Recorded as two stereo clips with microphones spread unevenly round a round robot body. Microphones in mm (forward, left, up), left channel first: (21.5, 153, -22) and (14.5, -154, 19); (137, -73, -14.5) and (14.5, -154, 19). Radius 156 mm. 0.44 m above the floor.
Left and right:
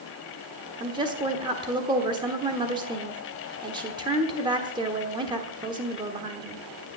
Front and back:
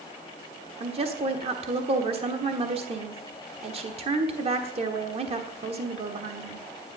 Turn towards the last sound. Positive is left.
turn(degrees=-165)